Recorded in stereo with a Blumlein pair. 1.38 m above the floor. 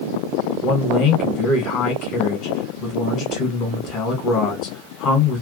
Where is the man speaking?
30° left, 1.0 m.